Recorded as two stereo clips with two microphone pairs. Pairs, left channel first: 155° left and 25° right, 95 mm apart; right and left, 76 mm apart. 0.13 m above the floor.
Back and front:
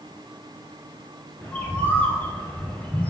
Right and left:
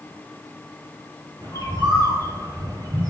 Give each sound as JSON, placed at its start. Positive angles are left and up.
{"t": 1.4, "sound": "a bird", "azimuth_deg": 90, "distance_m": 0.7}